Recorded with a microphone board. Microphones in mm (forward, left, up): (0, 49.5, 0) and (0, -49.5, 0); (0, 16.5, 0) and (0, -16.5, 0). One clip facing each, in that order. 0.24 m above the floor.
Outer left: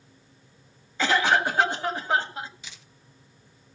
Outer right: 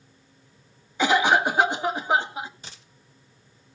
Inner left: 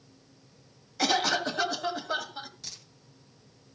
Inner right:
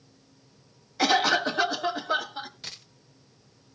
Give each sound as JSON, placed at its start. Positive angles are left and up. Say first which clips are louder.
{"t": 1.0, "sound": "a cough", "louder": "outer right 2 dB, inner right 4 dB", "side_deg": -15, "distance_m": 1.1}
{"t": 2.6, "sound": "a dropped coin", "louder": "outer right 1 dB, inner right 4 dB", "side_deg": -35, "distance_m": 1.3}